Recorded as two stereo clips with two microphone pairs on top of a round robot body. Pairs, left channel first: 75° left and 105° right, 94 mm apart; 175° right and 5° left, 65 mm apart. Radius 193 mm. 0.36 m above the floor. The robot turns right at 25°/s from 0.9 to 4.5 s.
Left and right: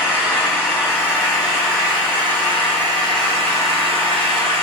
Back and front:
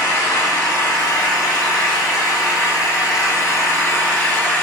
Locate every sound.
0.0 s an engine running: 175° left, 1.9 m; by 4.6 s 95° right, 1.9 m